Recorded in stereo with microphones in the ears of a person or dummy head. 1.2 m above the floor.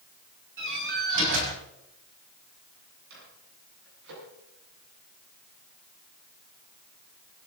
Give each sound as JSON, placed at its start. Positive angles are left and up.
{"t": 0.6, "sound": "a door slam", "side_deg": -60, "distance_m": 5.0}
{"t": 3.1, "sound": "a microwave", "side_deg": -75, "distance_m": 9.0}